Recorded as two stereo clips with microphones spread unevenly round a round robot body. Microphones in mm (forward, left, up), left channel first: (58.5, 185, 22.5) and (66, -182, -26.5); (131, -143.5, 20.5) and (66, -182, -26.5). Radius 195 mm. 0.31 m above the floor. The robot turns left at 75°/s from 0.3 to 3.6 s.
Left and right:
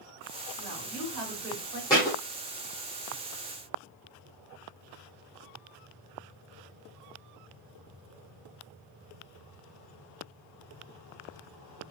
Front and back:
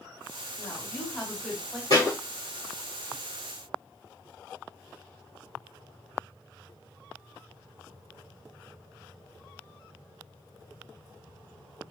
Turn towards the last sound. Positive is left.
turn(degrees=45)